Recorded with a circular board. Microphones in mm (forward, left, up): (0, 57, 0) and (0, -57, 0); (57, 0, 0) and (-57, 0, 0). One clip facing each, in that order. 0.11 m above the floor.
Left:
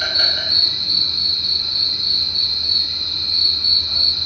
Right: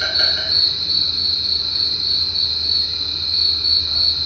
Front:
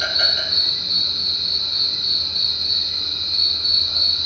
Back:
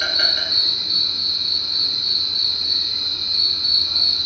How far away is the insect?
About 1.7 m.